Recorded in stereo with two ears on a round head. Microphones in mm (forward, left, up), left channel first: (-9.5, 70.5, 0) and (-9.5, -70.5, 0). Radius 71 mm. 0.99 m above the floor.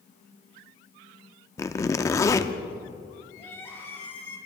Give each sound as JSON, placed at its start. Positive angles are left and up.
{"t": 1.6, "sound": "a zipper", "side_deg": 20, "distance_m": 0.5}
{"t": 3.4, "sound": "crying", "side_deg": 15, "distance_m": 3.0}